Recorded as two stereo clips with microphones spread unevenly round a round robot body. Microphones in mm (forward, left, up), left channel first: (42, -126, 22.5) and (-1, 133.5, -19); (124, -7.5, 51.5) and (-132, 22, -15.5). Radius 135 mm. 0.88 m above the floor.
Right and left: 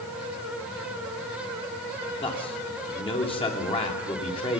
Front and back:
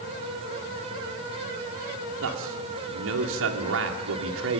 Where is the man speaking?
155° right, 2.5 m.